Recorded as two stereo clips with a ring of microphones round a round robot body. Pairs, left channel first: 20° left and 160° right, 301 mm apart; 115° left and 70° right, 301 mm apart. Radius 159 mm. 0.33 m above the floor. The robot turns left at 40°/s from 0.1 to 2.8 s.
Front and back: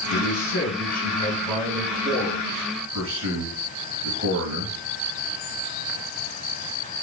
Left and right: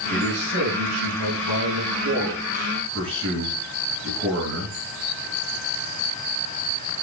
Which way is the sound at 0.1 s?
5° right.